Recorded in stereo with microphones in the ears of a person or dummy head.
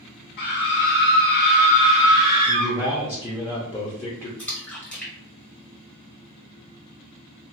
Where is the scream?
60° left (ahead or behind), 0.7 m; by 2.8 s 15° left (ahead or behind), 1.1 m.